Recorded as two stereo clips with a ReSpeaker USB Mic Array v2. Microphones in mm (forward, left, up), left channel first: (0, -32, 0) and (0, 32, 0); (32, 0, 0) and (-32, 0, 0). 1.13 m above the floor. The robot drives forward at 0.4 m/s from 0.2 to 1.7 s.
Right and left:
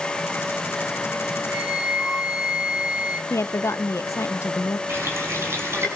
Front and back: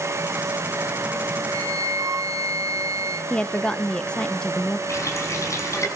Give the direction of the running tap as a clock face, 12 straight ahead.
11 o'clock.